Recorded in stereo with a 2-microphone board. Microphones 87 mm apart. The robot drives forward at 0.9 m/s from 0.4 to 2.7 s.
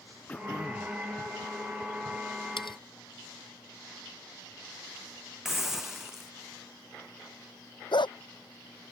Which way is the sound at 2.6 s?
75° left (ahead or behind).